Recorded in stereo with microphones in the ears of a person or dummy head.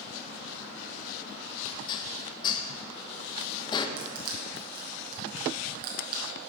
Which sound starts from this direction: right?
Crushing, at 4.0 s.